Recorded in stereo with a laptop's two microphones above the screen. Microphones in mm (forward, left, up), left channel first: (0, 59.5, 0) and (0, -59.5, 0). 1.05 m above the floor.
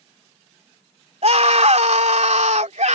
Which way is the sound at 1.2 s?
65° right (ahead or behind).